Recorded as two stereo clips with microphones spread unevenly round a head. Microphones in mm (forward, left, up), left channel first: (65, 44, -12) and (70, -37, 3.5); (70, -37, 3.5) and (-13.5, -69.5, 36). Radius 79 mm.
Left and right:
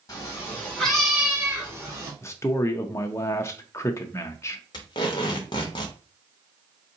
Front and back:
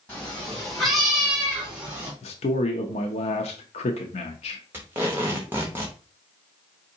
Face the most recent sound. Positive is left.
turn(degrees=145)